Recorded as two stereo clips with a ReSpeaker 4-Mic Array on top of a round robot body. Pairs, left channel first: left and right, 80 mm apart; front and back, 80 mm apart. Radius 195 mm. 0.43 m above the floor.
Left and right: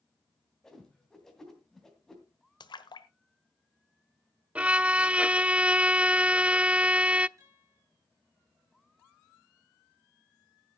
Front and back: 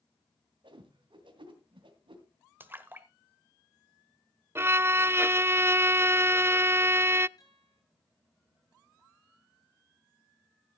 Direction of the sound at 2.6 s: 115° left.